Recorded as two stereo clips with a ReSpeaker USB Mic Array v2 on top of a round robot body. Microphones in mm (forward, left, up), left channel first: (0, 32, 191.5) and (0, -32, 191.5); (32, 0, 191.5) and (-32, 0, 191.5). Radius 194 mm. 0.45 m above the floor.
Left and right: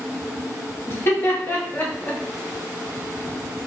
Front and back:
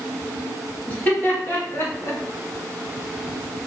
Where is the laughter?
55° left, 1.3 m; by 2.2 s 35° left, 1.7 m.